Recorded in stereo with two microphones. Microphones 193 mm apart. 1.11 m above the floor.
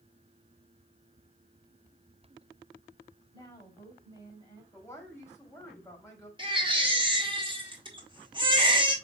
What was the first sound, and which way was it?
A woman speaking, 20° left (ahead or behind).